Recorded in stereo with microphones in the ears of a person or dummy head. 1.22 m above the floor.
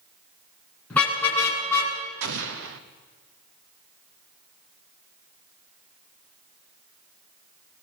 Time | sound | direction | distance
0.9 | a car horn | 10° left (ahead or behind) | 6 m
2.2 | an explosion | 70° right (ahead or behind) | 1.0 m